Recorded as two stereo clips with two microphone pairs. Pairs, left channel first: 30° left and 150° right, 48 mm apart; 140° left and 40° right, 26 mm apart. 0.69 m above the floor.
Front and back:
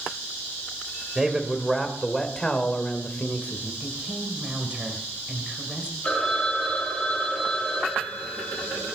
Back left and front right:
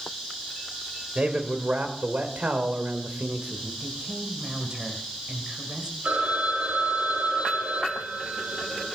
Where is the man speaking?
75° right, 2.5 m; by 3.7 s 25° right, 2.5 m.